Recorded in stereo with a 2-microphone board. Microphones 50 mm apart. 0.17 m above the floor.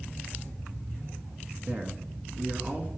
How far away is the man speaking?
About 1.7 m.